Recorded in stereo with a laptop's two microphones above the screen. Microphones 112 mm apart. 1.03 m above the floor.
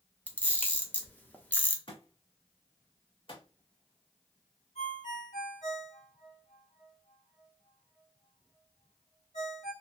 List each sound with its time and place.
0.3 s a camera shutter: 15° left (ahead or behind), 0.9 m
1.9 s a thud: 55° left (ahead or behind), 2 m
4.8 s a ringtone: 85° left, 1.6 m